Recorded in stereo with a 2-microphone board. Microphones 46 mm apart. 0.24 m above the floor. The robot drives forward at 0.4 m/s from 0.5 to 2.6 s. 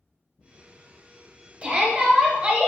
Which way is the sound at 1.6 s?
25° right (ahead or behind).